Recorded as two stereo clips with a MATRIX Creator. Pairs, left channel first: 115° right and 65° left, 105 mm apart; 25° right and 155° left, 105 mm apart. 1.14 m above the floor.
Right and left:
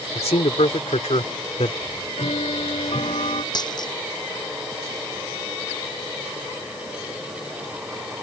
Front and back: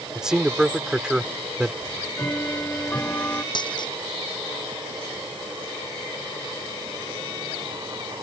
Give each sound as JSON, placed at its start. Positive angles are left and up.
{"t": 0.1, "sound": "a man speaking", "azimuth_deg": -120}
{"t": 1.8, "sound": "ticking", "azimuth_deg": -90}
{"t": 3.5, "sound": "a dropped coin", "azimuth_deg": -65}